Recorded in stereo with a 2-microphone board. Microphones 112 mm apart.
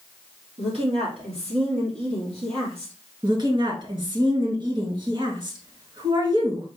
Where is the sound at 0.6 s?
55° right (ahead or behind), 3.5 m.